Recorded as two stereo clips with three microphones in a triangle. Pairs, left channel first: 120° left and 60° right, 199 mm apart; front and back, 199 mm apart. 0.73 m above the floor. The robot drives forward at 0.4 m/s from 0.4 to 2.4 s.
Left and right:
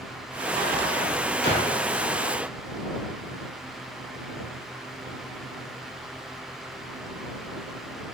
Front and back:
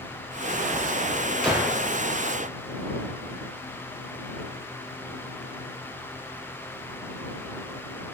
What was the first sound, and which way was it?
A gunshot, 95° left.